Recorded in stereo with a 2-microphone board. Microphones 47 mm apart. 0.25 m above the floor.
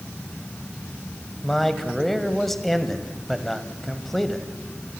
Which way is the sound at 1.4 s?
5° left (ahead or behind).